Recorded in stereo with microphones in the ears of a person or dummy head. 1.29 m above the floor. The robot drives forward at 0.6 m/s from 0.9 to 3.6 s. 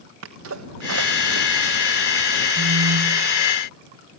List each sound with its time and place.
0.2 s a sneeze: 85° right, 1.0 m; by 1.5 s 75° right (ahead or behind), 1.1 m
2.6 s a phone buzzing: 50° right (ahead or behind), 1.8 m; by 3.3 s 60° right (ahead or behind), 1.5 m